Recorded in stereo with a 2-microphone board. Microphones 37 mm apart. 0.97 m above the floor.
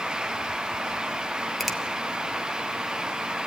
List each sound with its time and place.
1.6 s a finger snap: centre (ahead or behind), 1.2 m